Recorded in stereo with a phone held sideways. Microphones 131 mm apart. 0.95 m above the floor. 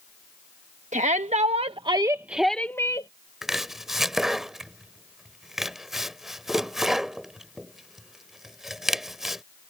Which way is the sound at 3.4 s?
5° right (ahead or behind).